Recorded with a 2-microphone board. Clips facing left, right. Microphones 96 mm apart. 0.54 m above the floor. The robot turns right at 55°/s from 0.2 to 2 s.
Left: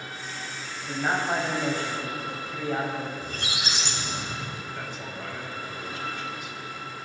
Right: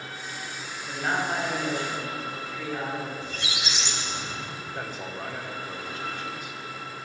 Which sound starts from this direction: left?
A squeak, at 3.2 s.